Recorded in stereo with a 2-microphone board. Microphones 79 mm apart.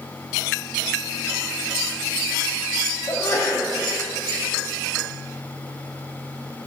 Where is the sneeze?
45° left (ahead or behind), 2.0 m.